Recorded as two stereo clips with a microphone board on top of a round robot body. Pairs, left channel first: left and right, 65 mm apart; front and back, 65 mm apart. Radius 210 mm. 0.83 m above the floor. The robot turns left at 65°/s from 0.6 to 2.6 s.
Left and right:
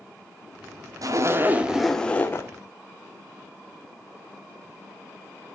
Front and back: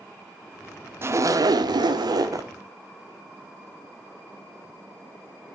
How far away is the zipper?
About 1.2 m.